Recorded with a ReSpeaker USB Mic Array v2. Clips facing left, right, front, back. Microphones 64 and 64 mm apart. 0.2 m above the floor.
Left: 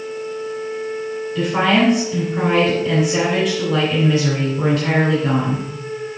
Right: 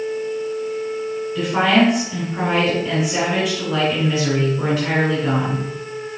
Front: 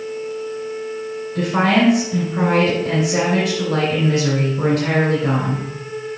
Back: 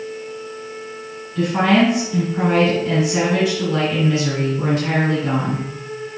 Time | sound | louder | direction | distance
1.4 | a woman speaking | even, back 1 dB | 5° right | 2.5 m